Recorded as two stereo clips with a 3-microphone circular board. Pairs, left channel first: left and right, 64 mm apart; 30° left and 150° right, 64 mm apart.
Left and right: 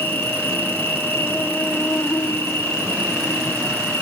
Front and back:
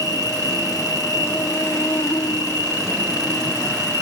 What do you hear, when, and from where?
0.0 s an insect: 30° left, 0.8 m